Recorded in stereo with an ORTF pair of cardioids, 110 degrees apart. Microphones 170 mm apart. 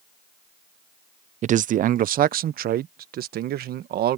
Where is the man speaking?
45° right; by 4.2 s 65° right.